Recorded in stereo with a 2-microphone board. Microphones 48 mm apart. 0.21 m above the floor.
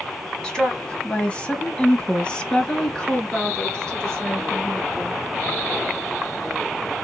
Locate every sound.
0.4 s a woman speaking: 15° left (ahead or behind), 1.1 m; by 5.2 s 10° left (ahead or behind), 3.5 m